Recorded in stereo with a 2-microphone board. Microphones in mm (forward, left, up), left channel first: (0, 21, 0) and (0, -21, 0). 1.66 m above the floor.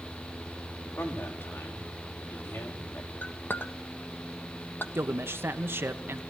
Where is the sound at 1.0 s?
75° left (ahead or behind), 4.5 m.